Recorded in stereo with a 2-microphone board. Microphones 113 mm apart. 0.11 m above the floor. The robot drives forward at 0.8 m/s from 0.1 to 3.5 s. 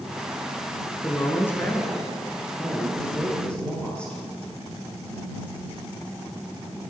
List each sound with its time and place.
1.0 s a woman speaking: 20° left (ahead or behind), 1.3 m; by 4.2 s 10° left (ahead or behind), 2.5 m